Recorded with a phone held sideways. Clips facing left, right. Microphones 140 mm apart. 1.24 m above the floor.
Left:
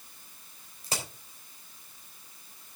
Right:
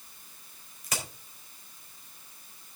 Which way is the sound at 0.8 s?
30° left (ahead or behind).